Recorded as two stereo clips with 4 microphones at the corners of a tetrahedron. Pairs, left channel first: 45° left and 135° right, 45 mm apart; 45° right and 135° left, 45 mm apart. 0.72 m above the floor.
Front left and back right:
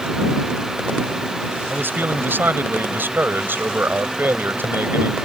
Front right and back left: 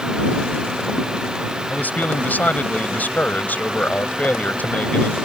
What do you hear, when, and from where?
1.7 s a man speaking: 95° right